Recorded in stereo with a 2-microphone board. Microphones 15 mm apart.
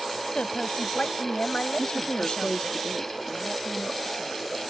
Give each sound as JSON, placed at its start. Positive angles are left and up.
{"t": 0.3, "sound": "a woman speaking", "side_deg": 80}
{"t": 1.8, "sound": "a woman speaking", "side_deg": 80}